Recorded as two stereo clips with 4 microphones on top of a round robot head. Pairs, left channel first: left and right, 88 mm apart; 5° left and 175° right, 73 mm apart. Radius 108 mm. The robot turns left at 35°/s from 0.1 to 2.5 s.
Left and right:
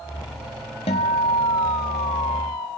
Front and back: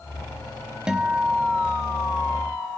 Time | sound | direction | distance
0.9 | a guitar | 110° left | 0.9 m